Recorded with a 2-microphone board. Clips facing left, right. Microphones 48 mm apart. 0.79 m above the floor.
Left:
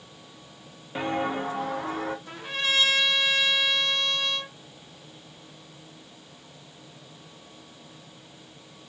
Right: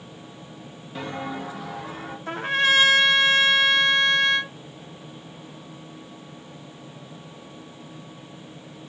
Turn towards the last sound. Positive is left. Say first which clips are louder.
# right 12 dB
turn(degrees=-45)  # may be behind; listen again after turning